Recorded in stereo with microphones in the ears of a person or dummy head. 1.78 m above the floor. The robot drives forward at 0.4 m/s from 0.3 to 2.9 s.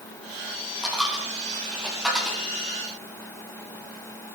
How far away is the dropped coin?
About 3 m.